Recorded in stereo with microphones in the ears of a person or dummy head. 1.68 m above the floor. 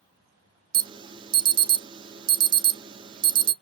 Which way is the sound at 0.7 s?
25° right (ahead or behind).